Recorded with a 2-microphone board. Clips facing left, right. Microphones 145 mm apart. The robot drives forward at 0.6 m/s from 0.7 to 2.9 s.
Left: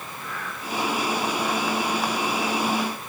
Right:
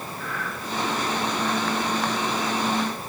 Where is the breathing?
25° left (ahead or behind), 8 m.